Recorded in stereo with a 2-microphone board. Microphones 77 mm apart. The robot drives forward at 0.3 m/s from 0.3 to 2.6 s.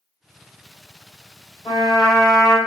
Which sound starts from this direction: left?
A trumpet, at 1.6 s.